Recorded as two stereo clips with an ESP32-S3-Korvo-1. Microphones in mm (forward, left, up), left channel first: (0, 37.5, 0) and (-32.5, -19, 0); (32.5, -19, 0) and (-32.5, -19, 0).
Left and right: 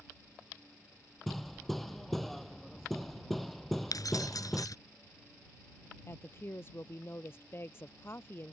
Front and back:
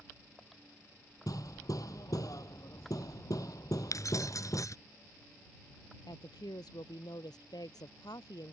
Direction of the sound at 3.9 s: 35° left.